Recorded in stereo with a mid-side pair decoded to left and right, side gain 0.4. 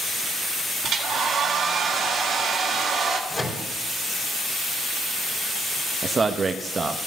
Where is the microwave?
20° left, 3.5 m.